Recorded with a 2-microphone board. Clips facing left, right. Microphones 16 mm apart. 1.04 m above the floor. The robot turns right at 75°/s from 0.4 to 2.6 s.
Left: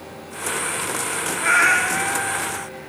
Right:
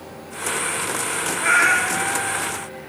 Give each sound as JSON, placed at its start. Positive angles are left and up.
{"t": 1.4, "sound": "a cat meowing", "azimuth_deg": -5, "distance_m": 0.5}